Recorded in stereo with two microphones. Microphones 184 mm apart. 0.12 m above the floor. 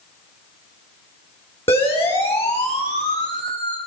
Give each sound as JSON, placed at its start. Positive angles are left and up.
{"t": 1.7, "sound": "a siren", "side_deg": 30, "distance_m": 6.0}